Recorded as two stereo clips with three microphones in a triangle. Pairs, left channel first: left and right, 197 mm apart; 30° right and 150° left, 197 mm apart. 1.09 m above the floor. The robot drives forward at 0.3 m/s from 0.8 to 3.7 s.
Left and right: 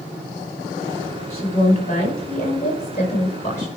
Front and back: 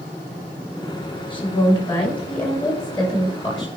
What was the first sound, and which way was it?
A woman speaking, 35° left.